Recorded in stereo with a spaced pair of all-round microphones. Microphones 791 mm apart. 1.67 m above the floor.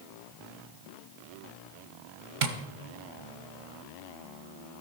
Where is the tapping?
70° right (ahead or behind), 1.2 m.